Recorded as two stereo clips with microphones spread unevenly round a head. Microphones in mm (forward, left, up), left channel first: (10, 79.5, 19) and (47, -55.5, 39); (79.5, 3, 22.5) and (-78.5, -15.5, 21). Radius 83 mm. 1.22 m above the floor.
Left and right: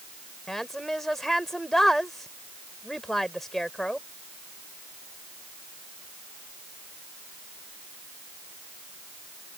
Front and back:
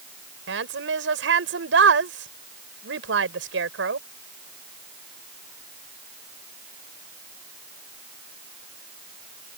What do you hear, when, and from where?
0.5 s a woman speaking: 165° right